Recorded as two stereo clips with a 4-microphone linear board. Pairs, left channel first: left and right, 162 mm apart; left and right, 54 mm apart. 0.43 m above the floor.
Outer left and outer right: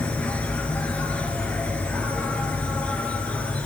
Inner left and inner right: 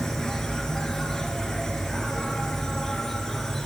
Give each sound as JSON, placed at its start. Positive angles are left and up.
{"t": 0.0, "sound": "an insect", "side_deg": 10, "distance_m": 0.9}